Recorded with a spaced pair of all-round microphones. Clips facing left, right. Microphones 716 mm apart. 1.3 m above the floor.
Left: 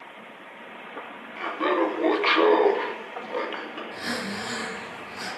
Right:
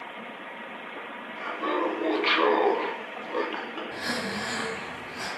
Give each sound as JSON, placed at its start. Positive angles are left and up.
{"t": 1.4, "sound": "laughter", "side_deg": 85, "distance_m": 1.3}
{"t": 3.9, "sound": "breathing", "side_deg": -75, "distance_m": 3.0}